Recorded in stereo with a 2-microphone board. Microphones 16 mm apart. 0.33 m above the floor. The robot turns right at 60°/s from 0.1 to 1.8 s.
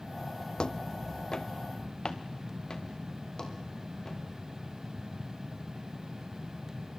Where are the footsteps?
55° left (ahead or behind), 0.8 m; by 4.2 s 40° left (ahead or behind), 5 m.